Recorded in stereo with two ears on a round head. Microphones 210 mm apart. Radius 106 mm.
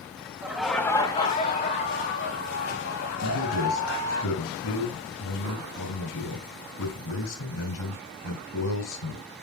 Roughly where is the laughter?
Centre.